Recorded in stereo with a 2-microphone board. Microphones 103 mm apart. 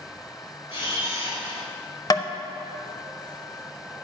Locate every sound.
0.7 s a camera shutter: 60° left (ahead or behind), 2 m
2.1 s tapping: 40° left (ahead or behind), 0.6 m